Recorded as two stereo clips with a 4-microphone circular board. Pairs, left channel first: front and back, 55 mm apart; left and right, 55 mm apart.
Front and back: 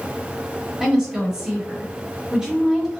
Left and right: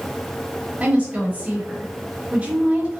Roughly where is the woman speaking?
Behind right.